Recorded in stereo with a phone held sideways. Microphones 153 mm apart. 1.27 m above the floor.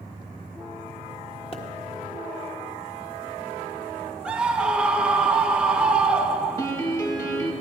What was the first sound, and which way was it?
A pop, 40° left (ahead or behind).